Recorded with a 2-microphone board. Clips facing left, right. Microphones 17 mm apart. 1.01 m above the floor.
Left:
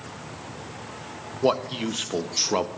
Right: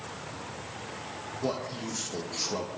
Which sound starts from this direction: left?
A man speaking, at 1.4 s.